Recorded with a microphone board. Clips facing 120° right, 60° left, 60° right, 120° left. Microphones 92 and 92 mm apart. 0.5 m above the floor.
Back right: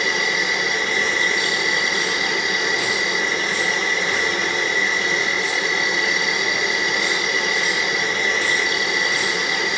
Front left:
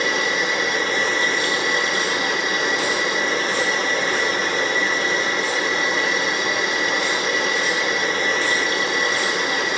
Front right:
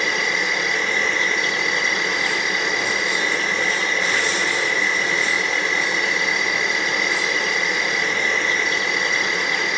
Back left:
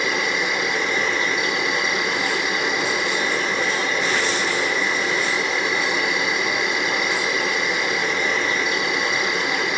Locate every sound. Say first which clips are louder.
0.0 s an insect: front left 1 dB, even; 50° left, 2.0 m